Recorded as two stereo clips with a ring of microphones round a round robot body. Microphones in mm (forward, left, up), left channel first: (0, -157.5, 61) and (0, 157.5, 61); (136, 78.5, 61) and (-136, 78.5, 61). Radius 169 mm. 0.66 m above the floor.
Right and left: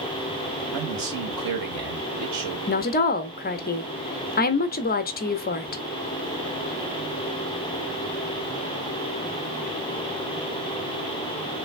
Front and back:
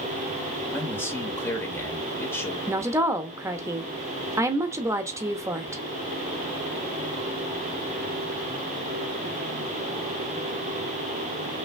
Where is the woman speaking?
110° right, 0.7 m.